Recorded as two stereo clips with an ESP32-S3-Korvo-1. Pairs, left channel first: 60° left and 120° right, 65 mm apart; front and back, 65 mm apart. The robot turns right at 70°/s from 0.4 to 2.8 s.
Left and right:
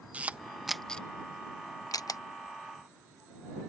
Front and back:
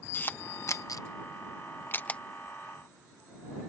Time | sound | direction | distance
0.1 | a camera shutter | 55° right | ?